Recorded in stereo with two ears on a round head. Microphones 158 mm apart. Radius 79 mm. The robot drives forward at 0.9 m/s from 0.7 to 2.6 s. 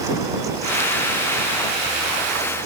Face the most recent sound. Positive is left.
No sound to turn to.